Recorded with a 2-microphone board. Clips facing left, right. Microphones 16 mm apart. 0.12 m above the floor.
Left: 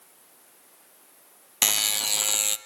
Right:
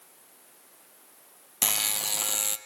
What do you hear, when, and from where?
1.6 s a buzzer: 25° left (ahead or behind), 0.6 m